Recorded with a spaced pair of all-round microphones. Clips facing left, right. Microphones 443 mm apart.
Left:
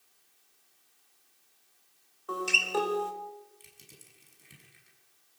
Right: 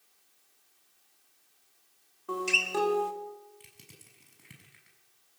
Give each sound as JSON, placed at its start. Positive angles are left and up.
{"t": 2.3, "sound": "a guitar", "side_deg": -40, "distance_m": 4.0}
{"t": 3.6, "sound": "crushing", "side_deg": -75, "distance_m": 6.5}